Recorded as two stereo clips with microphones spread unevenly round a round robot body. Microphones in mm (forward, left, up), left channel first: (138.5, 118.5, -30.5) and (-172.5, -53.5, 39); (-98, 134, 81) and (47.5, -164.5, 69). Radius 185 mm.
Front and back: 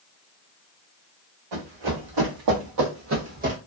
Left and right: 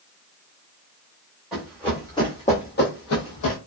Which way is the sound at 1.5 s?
155° right.